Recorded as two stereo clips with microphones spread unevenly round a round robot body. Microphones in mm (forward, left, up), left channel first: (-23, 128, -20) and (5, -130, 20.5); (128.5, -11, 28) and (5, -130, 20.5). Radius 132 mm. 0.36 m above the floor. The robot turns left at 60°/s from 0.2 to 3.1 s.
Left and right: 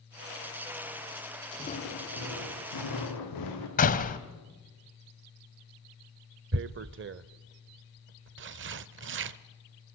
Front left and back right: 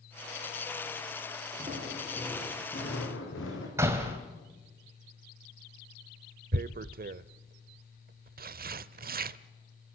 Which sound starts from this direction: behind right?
Tearing paper, at 6.5 s.